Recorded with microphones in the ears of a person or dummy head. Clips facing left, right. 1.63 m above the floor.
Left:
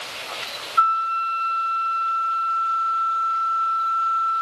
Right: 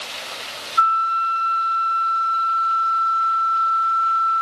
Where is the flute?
20° left (ahead or behind), 2 m.